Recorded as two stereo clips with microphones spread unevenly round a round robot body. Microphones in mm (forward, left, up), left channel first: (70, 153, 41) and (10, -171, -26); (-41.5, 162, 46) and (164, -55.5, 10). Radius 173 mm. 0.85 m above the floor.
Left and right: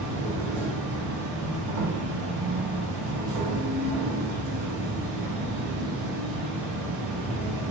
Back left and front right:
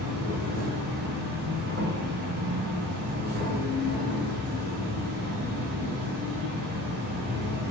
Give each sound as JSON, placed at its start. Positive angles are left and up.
{"t": 0.0, "sound": "an insect", "azimuth_deg": -95, "distance_m": 0.9}